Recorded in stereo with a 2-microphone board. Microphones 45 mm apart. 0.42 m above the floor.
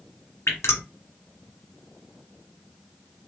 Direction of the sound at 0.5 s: 80° left.